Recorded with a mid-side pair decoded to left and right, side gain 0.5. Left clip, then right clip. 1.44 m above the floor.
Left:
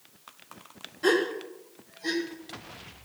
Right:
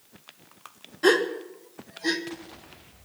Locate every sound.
1.0 s a gasp: 30° right, 2 m